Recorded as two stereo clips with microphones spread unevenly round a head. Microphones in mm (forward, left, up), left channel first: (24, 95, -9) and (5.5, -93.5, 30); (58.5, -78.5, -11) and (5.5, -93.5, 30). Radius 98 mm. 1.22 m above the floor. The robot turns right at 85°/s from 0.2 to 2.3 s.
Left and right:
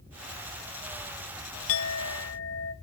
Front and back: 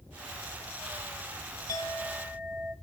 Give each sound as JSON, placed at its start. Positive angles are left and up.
{"t": 1.7, "sound": "a clink", "azimuth_deg": 65, "distance_m": 0.9}